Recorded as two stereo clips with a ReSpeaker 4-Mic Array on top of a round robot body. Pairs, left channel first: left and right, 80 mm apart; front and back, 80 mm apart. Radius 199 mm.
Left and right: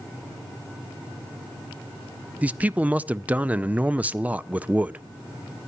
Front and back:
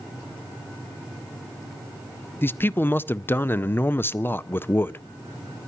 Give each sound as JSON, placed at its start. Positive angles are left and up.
{"t": 2.4, "sound": "a man speaking", "azimuth_deg": -35, "distance_m": 0.7}